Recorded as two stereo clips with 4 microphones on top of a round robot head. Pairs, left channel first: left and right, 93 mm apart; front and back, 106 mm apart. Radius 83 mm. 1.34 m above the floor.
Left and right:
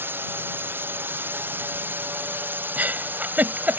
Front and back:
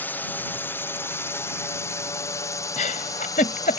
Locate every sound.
0.0 s a drone: 55° right; by 3.8 s 35° right
2.8 s a giggle: 20° right